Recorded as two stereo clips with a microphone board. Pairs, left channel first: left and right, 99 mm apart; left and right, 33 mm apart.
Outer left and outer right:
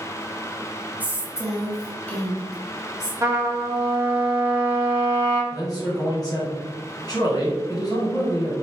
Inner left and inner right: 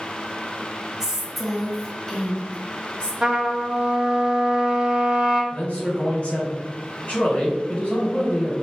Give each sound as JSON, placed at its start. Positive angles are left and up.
{"t": 1.0, "sound": "a woman speaking", "side_deg": -15, "distance_m": 1.0}
{"t": 3.2, "sound": "a trumpet", "side_deg": -25, "distance_m": 1.0}
{"t": 5.5, "sound": "a man speaking", "side_deg": 45, "distance_m": 1.6}